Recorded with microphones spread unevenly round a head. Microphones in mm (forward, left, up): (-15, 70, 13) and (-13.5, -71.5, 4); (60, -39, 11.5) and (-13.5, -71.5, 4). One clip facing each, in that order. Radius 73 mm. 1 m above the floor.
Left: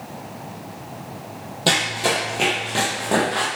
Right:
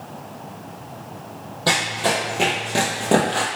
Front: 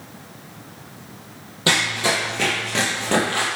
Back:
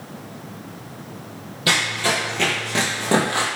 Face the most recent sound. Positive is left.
turn(degrees=-100)